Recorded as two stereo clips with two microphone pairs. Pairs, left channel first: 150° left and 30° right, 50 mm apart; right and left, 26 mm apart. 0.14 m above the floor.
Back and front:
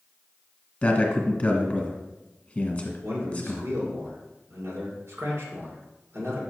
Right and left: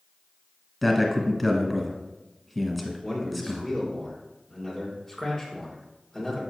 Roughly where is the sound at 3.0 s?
Ahead.